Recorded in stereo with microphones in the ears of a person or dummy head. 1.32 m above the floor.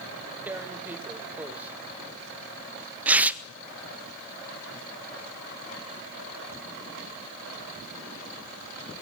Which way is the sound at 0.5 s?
10° right (ahead or behind).